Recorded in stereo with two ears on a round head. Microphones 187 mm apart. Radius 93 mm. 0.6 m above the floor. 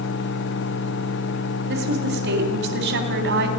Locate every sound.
1.7 s a woman speaking: 60° right (ahead or behind), 3.5 m